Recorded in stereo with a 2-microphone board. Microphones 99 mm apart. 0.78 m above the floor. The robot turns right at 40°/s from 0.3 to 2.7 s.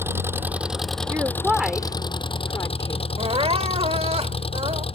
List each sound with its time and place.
0.0 s an engine running: 20° right; by 5.0 s 75° left
1.1 s a woman speaking: 25° right (ahead or behind); by 3.1 s 35° left (ahead or behind)
3.2 s crying: 80° right